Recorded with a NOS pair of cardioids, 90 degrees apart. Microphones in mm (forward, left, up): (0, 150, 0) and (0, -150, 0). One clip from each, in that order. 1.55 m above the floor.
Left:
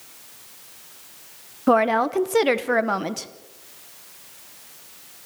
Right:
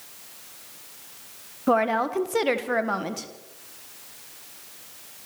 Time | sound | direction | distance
1.7 | a woman speaking | 25° left | 1.4 m